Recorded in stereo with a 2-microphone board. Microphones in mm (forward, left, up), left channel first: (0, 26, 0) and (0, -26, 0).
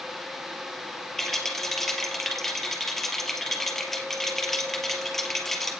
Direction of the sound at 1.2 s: 5° left (ahead or behind).